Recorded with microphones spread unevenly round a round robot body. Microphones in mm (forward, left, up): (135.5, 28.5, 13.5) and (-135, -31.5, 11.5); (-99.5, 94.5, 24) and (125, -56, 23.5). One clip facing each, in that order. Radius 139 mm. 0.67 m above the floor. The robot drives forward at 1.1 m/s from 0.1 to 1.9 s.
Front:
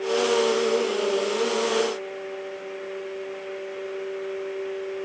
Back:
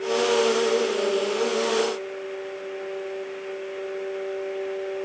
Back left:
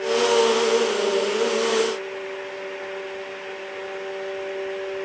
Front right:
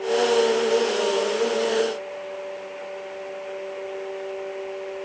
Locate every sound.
Only background noise.